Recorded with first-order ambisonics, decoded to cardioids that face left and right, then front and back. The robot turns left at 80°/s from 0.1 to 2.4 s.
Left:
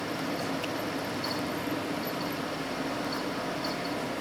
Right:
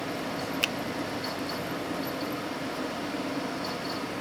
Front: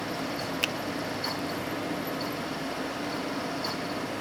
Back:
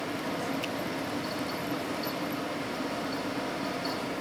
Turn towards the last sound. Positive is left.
turn(degrees=170)